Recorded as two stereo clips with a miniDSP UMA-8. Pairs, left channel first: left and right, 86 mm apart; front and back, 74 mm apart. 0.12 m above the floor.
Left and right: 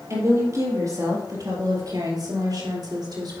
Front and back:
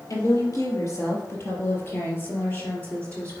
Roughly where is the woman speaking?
Ahead right.